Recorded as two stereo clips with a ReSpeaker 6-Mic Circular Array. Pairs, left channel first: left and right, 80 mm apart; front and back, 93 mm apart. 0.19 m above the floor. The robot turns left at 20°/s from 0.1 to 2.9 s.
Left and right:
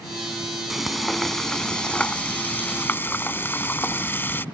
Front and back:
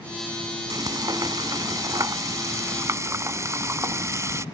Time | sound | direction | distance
0.7 | frying | 175° right | ?